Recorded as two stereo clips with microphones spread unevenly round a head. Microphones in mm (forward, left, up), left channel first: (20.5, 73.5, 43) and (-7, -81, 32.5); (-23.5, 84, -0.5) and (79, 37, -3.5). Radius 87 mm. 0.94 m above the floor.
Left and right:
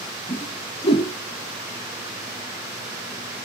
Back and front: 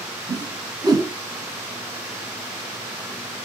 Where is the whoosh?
30° left, 1.5 m.